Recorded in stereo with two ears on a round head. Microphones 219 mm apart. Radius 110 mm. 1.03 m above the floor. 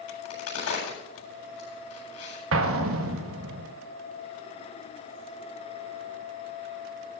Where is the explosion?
60° right (ahead or behind), 1.3 m.